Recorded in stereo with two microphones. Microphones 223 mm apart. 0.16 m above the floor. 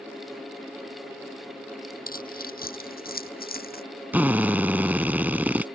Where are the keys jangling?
45° left (ahead or behind).